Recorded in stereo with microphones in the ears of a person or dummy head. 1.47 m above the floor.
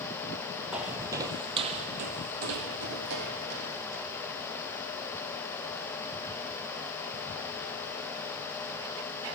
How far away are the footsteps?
About 1.8 m.